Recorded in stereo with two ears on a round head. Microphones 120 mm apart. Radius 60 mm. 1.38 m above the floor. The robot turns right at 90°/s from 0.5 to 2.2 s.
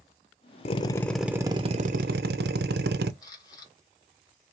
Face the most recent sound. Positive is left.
turn(degrees=30)  # may be behind; listen again after turning